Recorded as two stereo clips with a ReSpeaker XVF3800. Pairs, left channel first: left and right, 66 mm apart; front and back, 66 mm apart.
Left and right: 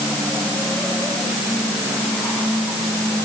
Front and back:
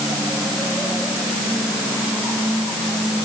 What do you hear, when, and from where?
Only background noise.